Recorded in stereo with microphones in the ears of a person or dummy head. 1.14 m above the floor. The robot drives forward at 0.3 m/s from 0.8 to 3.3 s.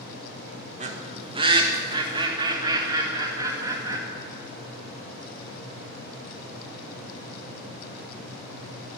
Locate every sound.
0.8 s a bird: 30° right (ahead or behind), 1.2 m; by 4.0 s 20° right (ahead or behind), 1.8 m